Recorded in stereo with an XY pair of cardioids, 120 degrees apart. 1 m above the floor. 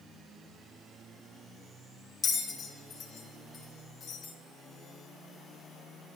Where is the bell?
50° left, 4 m.